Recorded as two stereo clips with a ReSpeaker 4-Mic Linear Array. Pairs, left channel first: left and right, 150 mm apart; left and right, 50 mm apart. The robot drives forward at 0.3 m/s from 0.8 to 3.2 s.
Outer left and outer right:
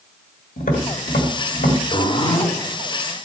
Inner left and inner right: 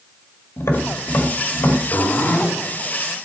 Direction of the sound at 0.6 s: 85° left.